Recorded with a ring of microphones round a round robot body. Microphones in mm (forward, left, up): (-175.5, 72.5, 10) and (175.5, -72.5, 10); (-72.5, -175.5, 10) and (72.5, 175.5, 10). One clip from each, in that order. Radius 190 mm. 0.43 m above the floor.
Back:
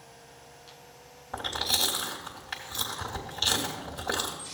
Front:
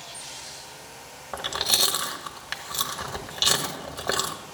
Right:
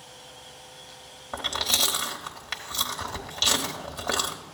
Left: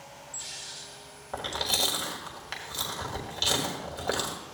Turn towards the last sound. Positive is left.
turn(degrees=-40)